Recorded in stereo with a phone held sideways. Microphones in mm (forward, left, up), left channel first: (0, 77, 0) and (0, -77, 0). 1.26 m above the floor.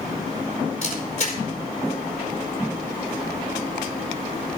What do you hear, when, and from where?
0.8 s a camera shutter: 45° left (ahead or behind), 4 m